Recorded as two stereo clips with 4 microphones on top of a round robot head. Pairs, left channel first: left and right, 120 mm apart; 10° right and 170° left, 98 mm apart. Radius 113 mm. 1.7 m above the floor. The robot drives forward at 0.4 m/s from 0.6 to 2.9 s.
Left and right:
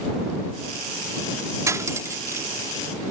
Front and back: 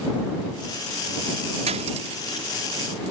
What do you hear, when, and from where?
1.7 s cutlery clinking: 155° right; by 2.5 s 160° right